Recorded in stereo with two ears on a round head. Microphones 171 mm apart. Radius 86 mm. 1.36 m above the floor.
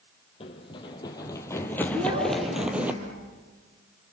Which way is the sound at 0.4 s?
30° left (ahead or behind).